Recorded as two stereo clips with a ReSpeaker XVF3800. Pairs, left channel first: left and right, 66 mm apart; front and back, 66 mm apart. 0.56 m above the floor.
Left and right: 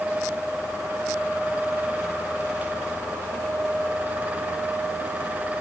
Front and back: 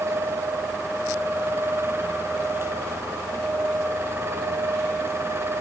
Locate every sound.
Only background noise.